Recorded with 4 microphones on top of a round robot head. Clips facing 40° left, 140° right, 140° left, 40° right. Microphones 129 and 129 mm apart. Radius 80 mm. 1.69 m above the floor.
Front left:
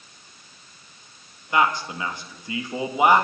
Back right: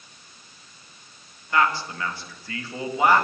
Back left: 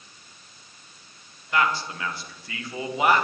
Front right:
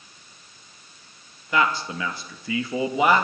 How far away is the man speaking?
About 2.5 m.